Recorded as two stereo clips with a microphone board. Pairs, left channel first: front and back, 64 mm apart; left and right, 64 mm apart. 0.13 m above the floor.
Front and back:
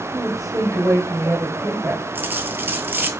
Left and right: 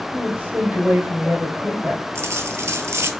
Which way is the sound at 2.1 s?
130° right.